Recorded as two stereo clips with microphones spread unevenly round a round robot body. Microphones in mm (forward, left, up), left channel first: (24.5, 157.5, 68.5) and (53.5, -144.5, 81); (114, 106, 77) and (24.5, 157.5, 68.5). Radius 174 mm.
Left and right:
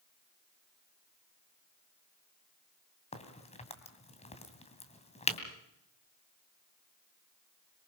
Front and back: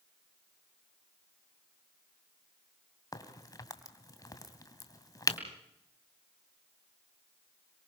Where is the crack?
25° left, 2.5 m.